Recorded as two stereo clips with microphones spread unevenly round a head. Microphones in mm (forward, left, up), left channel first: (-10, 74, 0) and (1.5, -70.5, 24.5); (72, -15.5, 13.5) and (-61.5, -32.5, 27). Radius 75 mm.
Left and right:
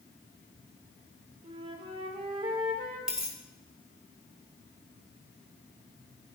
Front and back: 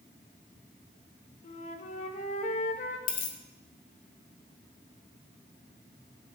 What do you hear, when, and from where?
1.4 s a flute: 25° right, 1.1 m
3.1 s a dropped coin: 5° right, 1.4 m